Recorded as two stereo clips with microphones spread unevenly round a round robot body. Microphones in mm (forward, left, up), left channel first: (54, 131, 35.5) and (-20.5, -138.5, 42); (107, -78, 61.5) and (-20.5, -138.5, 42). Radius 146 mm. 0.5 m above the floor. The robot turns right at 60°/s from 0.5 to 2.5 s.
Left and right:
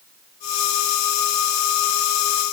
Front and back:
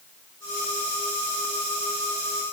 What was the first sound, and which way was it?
Only background noise.